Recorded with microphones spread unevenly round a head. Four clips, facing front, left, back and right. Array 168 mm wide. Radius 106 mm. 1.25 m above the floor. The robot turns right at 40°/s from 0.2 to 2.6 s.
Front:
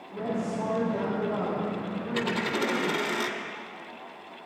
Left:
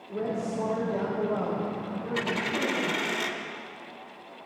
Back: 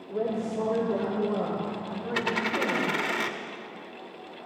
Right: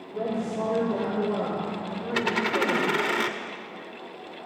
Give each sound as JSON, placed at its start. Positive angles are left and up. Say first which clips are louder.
{"t": 0.1, "sound": "a woman speaking", "louder": "right 1 dB, back 2 dB", "azimuth_deg": 175, "distance_m": 6.5}
{"t": 2.1, "sound": "a dropped coin", "louder": "right 5 dB, back 1 dB", "azimuth_deg": -90, "distance_m": 1.9}